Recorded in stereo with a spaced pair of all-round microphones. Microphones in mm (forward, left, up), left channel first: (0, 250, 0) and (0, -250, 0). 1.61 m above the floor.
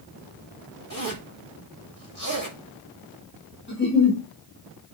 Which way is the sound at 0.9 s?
40° left (ahead or behind).